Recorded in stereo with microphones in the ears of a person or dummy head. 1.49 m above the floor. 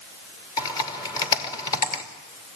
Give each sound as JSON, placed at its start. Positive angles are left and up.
{"t": 0.6, "sound": "typing on a keyboard", "side_deg": 20, "distance_m": 3.0}